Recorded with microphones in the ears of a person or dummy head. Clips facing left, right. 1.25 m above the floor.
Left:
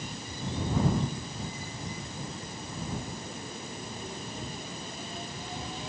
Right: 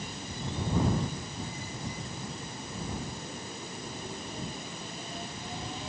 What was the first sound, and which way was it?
Only background noise.